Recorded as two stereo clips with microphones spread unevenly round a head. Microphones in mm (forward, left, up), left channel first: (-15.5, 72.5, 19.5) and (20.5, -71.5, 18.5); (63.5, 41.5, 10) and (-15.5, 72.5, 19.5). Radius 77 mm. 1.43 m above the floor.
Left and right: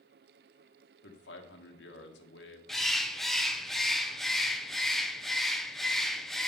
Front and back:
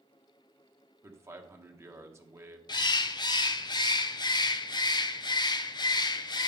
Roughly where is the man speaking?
Left.